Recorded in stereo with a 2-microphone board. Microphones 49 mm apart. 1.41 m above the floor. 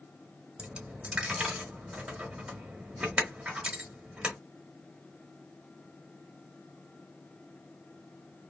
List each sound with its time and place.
0.6 s a dropped coin: 20° right (ahead or behind), 1.1 m